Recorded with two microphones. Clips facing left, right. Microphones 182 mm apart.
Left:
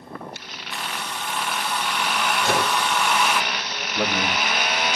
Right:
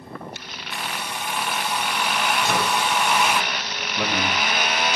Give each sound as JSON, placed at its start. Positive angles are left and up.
{"t": 0.7, "sound": "a hair dryer", "side_deg": -10, "distance_m": 0.9}
{"t": 2.4, "sound": "a microwave", "side_deg": 85, "distance_m": 5.5}
{"t": 4.0, "sound": "a man speaking", "side_deg": 60, "distance_m": 3.5}